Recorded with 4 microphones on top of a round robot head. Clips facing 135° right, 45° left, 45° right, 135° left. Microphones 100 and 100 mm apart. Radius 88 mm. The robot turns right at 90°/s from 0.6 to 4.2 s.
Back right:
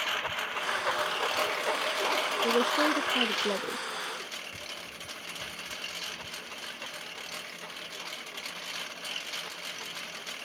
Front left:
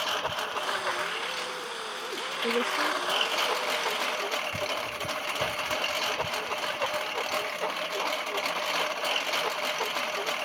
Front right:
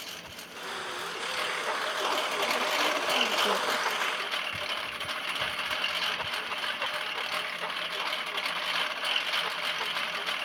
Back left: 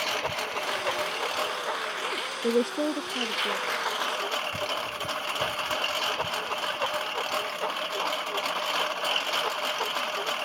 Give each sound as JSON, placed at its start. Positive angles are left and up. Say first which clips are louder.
{"t": 0.0, "sound": "a lawn mower", "louder": "front left 3 dB, back left 15 dB", "azimuth_deg": 115}
{"t": 2.4, "sound": "a woman speaking", "louder": "back right 1 dB, back left 9 dB", "azimuth_deg": 135}